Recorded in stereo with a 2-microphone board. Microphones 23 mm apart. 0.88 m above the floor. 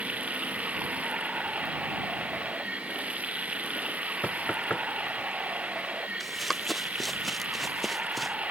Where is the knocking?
85° left.